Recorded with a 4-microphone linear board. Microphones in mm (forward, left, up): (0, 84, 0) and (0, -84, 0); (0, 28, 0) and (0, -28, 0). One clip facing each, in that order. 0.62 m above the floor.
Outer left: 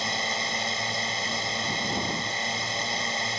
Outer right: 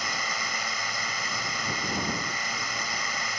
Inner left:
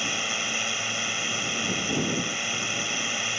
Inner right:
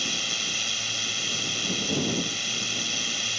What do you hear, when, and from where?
0.0 s a drone: 25° left (ahead or behind)